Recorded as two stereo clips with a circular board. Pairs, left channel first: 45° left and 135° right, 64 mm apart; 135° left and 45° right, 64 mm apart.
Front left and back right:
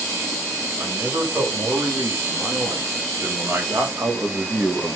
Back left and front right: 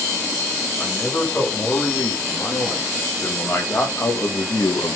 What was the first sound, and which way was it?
A man speaking, 165° right.